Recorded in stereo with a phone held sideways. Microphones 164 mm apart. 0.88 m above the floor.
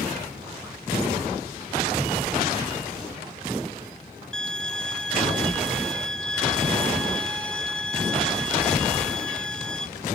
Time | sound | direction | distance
4.3 | a violin | 5° left (ahead or behind) | 1.0 m